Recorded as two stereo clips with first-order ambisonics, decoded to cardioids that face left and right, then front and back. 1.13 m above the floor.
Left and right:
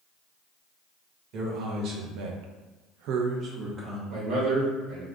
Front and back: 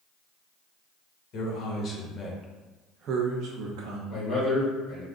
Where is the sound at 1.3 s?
50° right, 1.1 m; by 4.0 s 170° right, 0.8 m.